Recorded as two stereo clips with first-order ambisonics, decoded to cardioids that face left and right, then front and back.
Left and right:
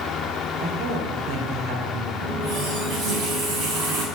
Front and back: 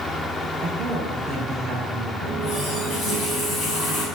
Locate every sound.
0.6 s a woman speaking: 85° right, 3 m
2.2 s a running tap: 55° right, 5 m